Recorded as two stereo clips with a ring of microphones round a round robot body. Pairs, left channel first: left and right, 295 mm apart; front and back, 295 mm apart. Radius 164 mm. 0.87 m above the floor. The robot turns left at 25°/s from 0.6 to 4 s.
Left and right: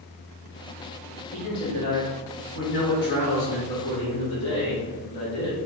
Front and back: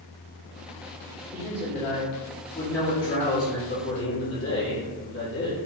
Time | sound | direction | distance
1.3 | a man speaking | 115° left | 1.8 m